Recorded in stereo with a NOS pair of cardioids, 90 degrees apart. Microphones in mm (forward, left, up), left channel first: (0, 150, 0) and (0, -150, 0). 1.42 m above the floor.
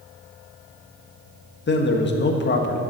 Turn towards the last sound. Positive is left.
turn(degrees=35)